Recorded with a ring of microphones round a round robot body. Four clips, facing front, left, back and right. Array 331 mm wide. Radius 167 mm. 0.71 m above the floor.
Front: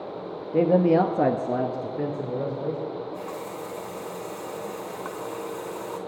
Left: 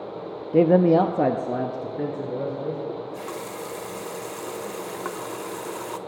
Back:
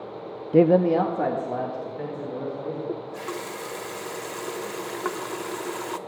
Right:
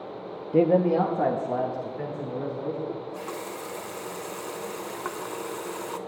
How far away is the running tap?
About 0.8 m.